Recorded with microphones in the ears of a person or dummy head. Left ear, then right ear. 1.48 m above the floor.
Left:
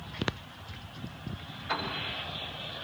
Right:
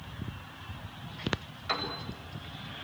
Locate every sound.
1.7 s a piano: 85° right, 6.5 m